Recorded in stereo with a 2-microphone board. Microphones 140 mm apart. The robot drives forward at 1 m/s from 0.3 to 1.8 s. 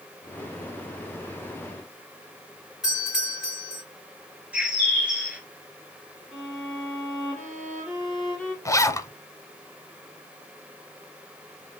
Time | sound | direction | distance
2.8 | a doorbell | 5° right (ahead or behind) | 4 m
4.5 | a bird | 10° right (ahead or behind) | 1.1 m
6.3 | a violin | centre (ahead or behind) | 3 m
8.7 | a zipper | 25° left (ahead or behind) | 0.5 m